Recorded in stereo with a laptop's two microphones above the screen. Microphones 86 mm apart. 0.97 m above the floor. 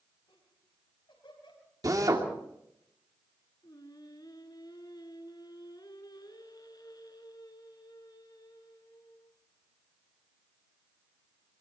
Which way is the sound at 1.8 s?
45° right (ahead or behind).